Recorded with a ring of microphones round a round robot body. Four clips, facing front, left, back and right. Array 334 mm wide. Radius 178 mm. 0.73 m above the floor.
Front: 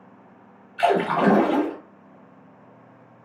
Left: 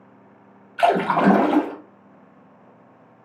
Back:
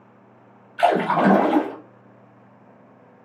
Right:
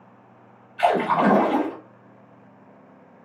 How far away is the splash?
About 0.6 m.